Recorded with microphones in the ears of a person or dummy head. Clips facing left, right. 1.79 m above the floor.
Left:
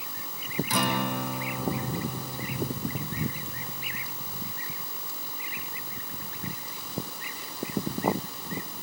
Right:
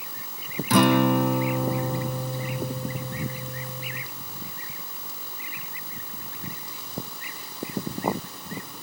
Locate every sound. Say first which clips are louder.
0.7 s a guitar: right 12 dB; 50° right (ahead or behind), 1.1 m